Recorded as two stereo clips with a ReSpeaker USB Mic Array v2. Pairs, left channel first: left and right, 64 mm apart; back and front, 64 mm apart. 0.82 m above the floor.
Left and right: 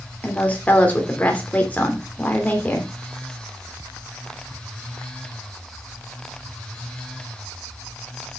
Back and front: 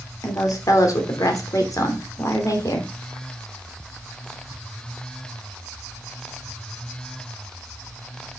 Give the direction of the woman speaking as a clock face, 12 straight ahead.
7 o'clock.